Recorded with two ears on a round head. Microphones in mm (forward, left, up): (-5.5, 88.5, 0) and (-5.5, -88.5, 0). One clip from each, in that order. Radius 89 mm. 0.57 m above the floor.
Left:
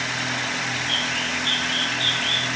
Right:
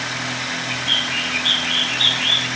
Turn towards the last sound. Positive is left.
turn(degrees=-60)  # may be behind; listen again after turning